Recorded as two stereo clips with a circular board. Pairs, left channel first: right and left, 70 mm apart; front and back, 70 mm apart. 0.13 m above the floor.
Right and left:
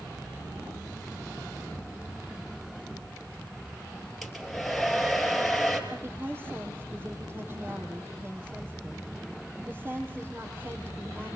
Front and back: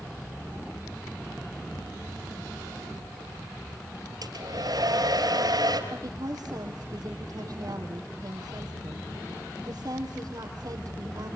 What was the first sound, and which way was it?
A hair dryer, straight behind.